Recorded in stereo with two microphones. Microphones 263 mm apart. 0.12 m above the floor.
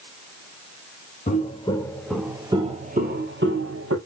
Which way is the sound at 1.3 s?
30° left (ahead or behind).